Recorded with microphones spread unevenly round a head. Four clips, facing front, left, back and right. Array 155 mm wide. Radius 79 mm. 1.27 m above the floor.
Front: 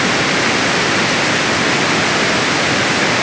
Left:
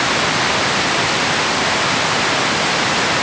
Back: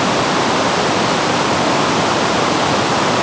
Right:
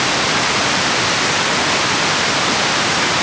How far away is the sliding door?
I don't hear a sliding door.